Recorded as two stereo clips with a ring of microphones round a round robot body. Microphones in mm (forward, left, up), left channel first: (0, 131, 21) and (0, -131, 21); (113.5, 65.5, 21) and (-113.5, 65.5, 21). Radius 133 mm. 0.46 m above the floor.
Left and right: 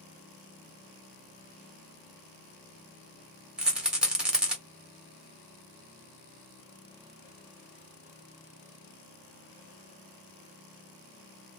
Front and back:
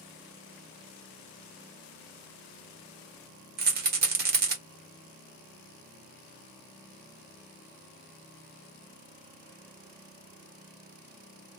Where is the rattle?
175° right, 1.4 m.